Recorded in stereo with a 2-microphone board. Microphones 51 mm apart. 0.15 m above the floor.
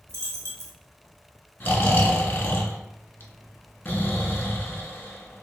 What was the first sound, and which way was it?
A dropped coin, 65° right (ahead or behind).